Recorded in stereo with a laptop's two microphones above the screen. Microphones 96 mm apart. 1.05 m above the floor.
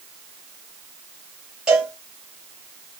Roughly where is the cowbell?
Centre.